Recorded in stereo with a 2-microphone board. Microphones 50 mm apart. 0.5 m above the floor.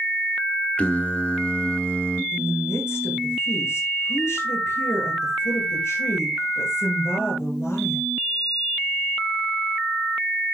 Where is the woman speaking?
70° left (ahead or behind), 7.5 m.